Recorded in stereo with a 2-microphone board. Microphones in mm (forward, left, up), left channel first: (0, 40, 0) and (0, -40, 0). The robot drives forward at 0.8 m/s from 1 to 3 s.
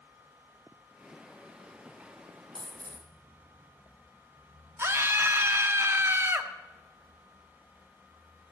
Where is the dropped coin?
90° right, 2.5 m; by 3.1 s 80° right, 2.5 m.